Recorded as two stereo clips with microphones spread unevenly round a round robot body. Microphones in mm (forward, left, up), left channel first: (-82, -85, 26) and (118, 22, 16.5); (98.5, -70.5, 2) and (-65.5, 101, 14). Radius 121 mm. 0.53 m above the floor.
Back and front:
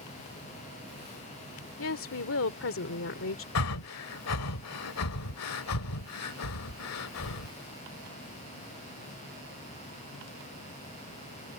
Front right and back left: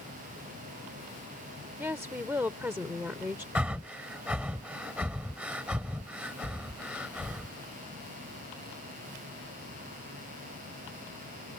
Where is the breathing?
140° right.